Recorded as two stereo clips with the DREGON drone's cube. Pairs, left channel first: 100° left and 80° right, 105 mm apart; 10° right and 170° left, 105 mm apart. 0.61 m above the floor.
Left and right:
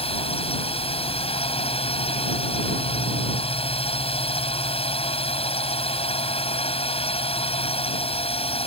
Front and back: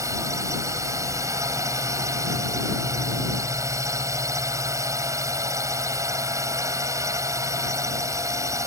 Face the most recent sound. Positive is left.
turn(degrees=110)